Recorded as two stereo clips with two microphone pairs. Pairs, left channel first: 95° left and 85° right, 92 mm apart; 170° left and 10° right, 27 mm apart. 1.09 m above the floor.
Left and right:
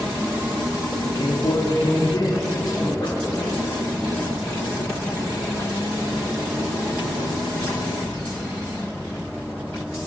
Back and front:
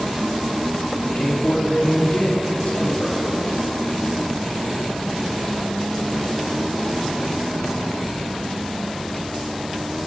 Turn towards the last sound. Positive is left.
turn(degrees=130)